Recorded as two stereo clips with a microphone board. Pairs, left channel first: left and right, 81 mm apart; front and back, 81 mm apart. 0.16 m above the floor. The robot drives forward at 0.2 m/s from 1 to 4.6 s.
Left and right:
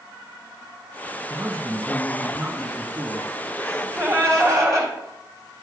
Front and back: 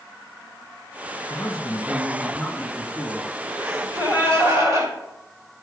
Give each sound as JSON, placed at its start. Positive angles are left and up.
{"t": 1.3, "sound": "a man speaking", "azimuth_deg": -60, "distance_m": 1.2}
{"t": 3.6, "sound": "a gasp", "azimuth_deg": -130, "distance_m": 3.0}